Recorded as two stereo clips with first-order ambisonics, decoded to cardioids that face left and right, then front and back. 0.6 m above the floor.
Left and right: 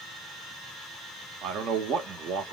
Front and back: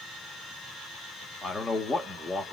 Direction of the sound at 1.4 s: 85° right.